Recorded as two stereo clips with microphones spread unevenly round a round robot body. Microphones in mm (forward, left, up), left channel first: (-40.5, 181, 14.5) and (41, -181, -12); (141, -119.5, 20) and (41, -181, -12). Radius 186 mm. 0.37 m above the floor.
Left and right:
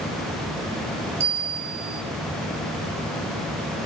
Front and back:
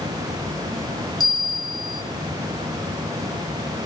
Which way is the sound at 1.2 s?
25° right.